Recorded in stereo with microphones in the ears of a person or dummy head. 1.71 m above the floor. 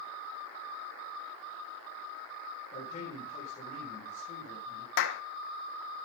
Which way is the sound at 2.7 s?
35° left (ahead or behind).